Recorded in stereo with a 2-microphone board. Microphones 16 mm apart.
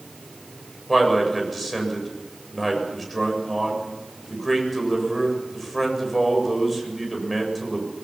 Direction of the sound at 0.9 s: 5° left (ahead or behind).